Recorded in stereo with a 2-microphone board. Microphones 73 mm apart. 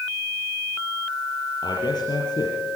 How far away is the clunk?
I don't hear a clunk.